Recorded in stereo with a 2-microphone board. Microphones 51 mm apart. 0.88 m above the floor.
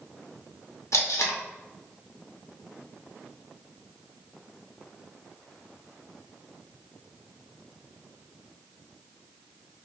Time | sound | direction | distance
0.9 | tape being pulled | 85° left | 0.9 m